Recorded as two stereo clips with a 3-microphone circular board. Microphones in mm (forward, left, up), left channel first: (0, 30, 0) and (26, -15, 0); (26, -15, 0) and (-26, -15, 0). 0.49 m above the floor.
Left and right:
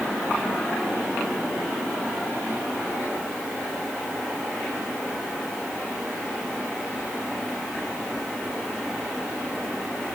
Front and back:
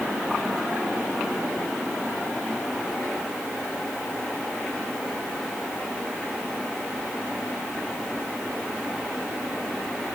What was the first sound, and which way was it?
Only background noise.